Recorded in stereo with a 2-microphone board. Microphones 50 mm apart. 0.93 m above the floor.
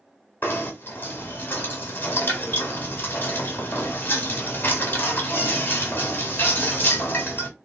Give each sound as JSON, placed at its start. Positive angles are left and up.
{"t": 0.4, "sound": "knocking", "side_deg": 40, "distance_m": 1.4}